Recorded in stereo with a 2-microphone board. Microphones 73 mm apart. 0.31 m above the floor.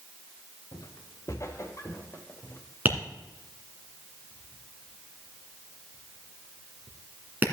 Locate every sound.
0.7 s footsteps: 55° left (ahead or behind), 1.3 m; by 2.6 s 35° left (ahead or behind), 2.5 m
2.9 s tapping: 25° right (ahead or behind), 2 m